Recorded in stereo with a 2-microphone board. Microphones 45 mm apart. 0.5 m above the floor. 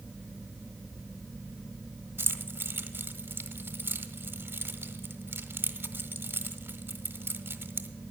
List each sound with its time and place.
2.2 s keys jangling: 55° right (ahead or behind), 0.8 m